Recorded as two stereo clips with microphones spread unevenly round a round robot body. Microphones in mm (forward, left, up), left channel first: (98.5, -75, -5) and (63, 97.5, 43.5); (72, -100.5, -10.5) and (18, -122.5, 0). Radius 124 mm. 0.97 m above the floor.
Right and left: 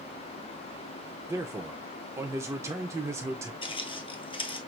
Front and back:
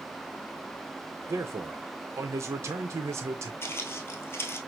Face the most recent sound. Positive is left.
turn(degrees=-10)